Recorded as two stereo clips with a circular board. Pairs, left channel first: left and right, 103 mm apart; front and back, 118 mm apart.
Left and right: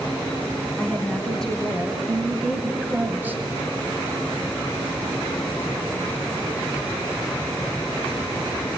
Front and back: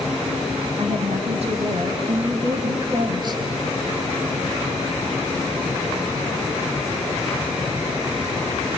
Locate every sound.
0.8 s a woman speaking: 170° left, 2 m; by 3.4 s 150° right, 1.4 m